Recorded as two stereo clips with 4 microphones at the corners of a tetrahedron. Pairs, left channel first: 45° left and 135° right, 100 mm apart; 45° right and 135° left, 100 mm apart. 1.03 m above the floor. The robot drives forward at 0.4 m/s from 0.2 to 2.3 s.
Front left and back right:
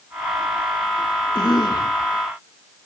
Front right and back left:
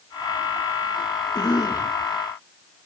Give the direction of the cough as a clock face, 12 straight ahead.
12 o'clock.